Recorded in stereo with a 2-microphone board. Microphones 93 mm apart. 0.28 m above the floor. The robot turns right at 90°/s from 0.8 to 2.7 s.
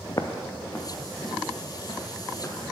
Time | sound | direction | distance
0.1 | footsteps | 45° left (ahead or behind) | 0.7 m